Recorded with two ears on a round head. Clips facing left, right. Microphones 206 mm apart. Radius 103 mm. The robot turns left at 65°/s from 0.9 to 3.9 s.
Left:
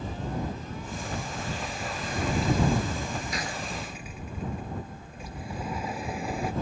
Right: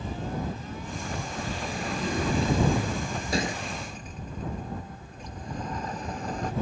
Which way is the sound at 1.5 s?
35° right.